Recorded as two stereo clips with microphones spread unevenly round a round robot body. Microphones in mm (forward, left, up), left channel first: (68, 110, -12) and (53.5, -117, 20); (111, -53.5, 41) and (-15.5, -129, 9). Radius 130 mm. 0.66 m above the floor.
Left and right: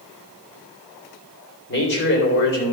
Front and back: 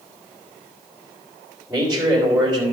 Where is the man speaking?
130° left, 2.5 m.